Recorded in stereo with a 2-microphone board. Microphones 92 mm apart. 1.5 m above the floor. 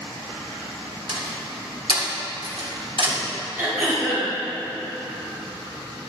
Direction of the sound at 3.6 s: 25° right (ahead or behind).